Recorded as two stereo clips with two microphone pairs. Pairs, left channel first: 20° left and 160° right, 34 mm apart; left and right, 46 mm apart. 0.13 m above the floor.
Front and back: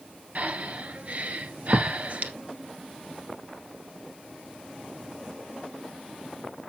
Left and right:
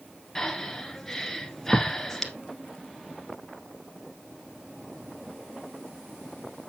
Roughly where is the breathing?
Behind.